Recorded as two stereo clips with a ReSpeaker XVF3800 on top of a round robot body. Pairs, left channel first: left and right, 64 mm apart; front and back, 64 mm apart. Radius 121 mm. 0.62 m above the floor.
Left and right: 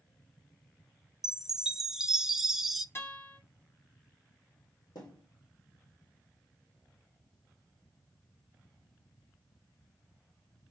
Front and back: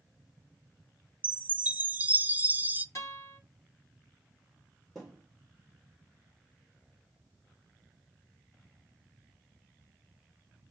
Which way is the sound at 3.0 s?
40° left.